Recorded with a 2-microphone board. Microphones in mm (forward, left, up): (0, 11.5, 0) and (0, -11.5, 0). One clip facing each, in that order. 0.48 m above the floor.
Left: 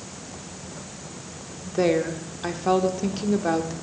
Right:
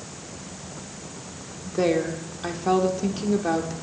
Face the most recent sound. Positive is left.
turn(degrees=5)  # may be behind; listen again after turning